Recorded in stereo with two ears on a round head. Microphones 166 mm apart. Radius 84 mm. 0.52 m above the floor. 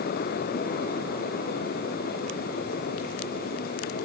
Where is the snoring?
I don't hear snoring.